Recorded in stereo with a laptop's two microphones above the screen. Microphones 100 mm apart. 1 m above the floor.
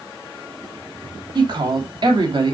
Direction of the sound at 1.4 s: 55° right (ahead or behind).